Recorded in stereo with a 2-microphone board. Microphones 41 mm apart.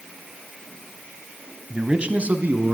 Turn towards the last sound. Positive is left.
turn(degrees=-55)  # may be behind; listen again after turning